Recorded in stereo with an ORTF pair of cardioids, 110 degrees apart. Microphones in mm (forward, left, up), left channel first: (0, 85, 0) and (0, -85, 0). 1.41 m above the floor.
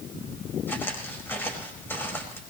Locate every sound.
0.7 s footsteps: 15° left, 5 m